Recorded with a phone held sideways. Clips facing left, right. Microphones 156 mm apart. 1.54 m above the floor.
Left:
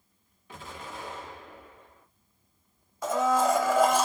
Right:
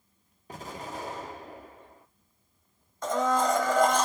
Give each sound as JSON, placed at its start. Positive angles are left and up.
{"t": 0.5, "sound": "an explosion", "side_deg": -40, "distance_m": 0.6}
{"t": 3.0, "sound": "a blender", "side_deg": 10, "distance_m": 0.5}